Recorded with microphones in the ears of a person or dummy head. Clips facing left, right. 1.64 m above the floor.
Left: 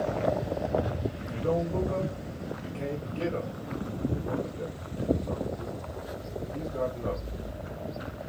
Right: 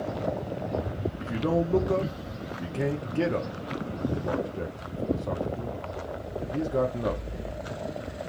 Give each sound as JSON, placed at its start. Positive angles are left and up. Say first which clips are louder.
{"t": 1.2, "sound": "a man speaking", "louder": "right 3 dB", "side_deg": -70, "distance_m": 0.6}